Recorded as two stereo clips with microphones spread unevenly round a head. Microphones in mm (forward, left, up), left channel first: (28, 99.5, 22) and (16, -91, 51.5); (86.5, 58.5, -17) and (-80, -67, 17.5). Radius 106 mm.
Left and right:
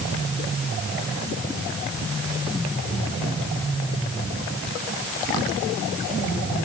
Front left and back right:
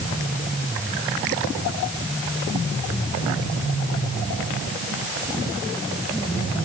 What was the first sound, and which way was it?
Only background noise.